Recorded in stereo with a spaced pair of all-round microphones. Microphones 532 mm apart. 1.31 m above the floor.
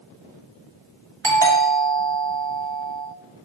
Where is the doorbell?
55° right (ahead or behind), 1.9 m.